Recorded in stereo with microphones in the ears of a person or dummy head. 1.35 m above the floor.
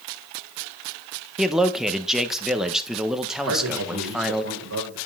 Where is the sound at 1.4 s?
5° left (ahead or behind), 1.1 m.